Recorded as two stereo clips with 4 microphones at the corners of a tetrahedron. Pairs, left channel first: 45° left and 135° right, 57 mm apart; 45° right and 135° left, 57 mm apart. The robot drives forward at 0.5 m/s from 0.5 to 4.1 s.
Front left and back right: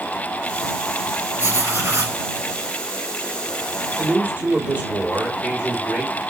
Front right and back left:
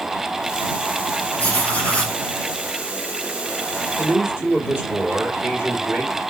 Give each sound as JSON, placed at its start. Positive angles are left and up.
{"t": 1.4, "sound": "writing", "azimuth_deg": -105, "distance_m": 2.5}
{"t": 4.0, "sound": "a man speaking", "azimuth_deg": 175, "distance_m": 2.0}